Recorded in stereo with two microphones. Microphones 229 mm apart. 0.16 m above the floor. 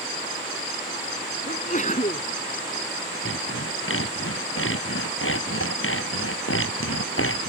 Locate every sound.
1.5 s a sneeze: 35° left (ahead or behind)
3.2 s sawing: 65° left (ahead or behind)